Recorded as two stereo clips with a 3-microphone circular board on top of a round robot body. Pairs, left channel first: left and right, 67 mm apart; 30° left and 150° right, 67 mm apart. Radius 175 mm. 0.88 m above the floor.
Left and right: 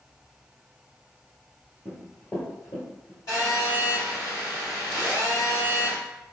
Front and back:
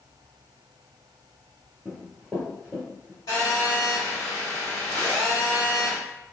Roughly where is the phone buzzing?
Ahead left.